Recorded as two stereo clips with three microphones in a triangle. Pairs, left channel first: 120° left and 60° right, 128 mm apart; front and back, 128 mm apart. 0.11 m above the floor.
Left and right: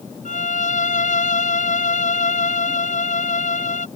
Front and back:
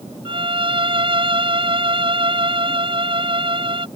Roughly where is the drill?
No drill in this recording.